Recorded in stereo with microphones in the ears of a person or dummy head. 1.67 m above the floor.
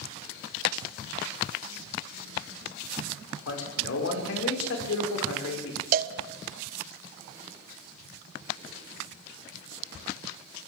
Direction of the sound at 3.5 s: 80° left.